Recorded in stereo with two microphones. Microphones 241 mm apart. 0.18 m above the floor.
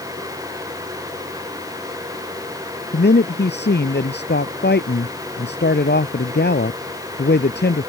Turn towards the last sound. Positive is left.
turn(degrees=50)  # may be behind; listen again after turning